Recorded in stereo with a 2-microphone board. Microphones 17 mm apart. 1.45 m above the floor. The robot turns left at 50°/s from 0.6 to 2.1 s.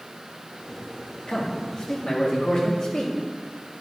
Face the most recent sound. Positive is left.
turn(degrees=50)